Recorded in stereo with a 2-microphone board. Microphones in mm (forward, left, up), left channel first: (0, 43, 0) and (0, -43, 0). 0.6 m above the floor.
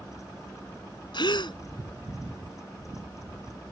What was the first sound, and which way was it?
A gasp, 65° left (ahead or behind).